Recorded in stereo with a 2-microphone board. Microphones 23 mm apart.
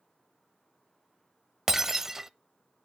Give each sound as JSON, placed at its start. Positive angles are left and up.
{"t": 1.7, "sound": "breaking glass", "side_deg": -20, "distance_m": 0.5}